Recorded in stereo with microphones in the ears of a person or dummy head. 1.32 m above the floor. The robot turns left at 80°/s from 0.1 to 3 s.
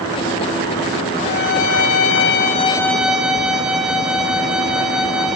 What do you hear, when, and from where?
1.2 s a violin: 140° left, 3 m; by 5.4 s 5° right, 3 m